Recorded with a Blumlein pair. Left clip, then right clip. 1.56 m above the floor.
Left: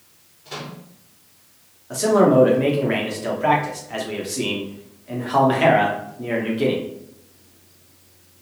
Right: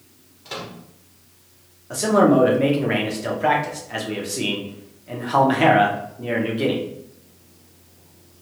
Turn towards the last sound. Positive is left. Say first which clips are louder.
# left 1 dB
turn(degrees=-5)